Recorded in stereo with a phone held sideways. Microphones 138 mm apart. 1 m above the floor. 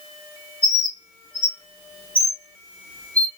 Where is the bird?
45° left (ahead or behind), 1.3 m.